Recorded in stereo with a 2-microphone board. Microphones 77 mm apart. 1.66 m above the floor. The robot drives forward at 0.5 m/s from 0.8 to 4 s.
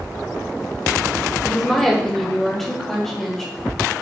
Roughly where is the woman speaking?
Centre.